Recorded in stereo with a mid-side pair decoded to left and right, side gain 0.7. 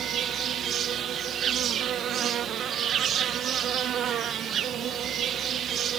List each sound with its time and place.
0.0 s an insect: 40° right